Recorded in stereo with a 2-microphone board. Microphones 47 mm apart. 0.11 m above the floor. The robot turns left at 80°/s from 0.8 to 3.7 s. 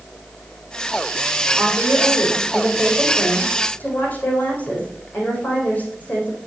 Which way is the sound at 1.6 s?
40° right.